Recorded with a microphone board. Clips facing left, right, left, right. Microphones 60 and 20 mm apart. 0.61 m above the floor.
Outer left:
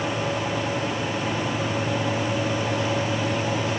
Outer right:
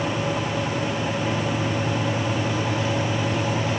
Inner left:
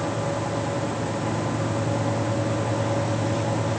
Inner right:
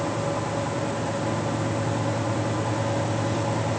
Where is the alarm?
I don't hear an alarm.